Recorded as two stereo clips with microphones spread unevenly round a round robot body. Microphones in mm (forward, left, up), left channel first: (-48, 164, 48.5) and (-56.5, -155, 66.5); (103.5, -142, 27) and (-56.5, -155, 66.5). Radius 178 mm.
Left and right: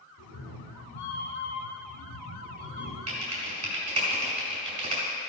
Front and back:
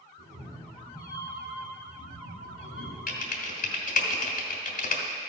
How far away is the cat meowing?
About 1.6 m.